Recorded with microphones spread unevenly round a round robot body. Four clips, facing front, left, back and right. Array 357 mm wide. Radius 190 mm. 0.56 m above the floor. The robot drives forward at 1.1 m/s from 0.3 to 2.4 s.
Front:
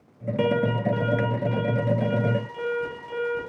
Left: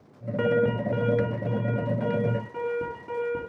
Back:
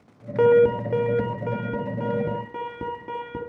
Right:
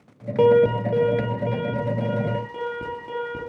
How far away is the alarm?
About 1.0 m.